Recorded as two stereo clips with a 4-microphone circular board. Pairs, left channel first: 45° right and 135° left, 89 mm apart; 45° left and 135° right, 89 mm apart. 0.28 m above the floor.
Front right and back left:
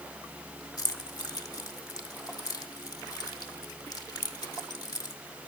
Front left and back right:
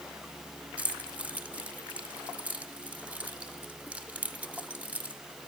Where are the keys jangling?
65° right, 1.2 m.